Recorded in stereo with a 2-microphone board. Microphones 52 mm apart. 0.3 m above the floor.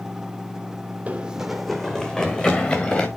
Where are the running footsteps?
25° right (ahead or behind), 0.8 m; by 3.1 s 25° left (ahead or behind), 2.5 m.